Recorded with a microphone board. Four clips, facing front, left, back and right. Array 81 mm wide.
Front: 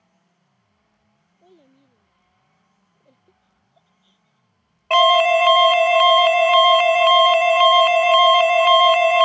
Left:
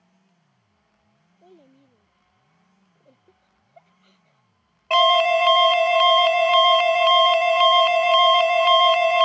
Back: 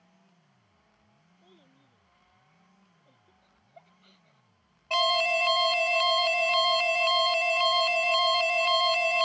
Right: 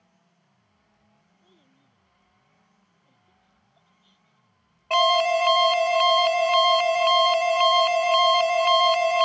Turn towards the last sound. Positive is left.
turn(degrees=15)